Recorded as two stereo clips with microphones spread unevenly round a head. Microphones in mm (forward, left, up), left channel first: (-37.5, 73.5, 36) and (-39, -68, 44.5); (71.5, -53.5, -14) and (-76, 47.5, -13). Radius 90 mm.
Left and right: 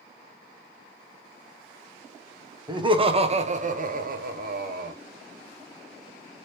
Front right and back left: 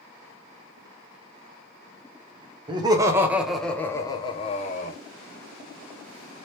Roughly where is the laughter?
Behind right.